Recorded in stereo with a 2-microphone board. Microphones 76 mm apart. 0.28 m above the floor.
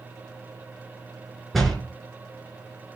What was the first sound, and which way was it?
A door slam, centre (ahead or behind).